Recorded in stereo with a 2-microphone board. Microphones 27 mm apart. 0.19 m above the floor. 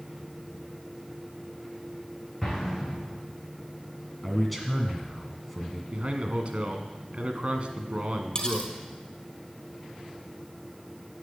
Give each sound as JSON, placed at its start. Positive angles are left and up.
{"t": 2.4, "sound": "an explosion", "side_deg": 5, "distance_m": 5.0}
{"t": 4.2, "sound": "a man speaking", "side_deg": 5, "distance_m": 1.9}
{"t": 5.9, "sound": "a man speaking", "side_deg": -45, "distance_m": 1.7}
{"t": 8.3, "sound": "cutlery clinking", "side_deg": 25, "distance_m": 2.5}